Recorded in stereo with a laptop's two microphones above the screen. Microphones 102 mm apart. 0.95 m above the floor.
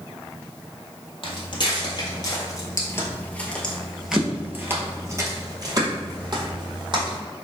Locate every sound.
1.2 s footsteps: 55° left (ahead or behind), 1.8 m; by 7.2 s 55° right (ahead or behind), 2 m